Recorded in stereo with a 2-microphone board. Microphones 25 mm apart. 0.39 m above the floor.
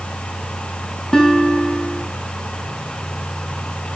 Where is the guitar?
25° left (ahead or behind), 3.5 m.